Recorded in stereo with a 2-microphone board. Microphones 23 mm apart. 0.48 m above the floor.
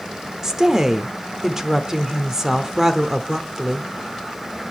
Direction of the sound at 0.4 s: 20° right (ahead or behind).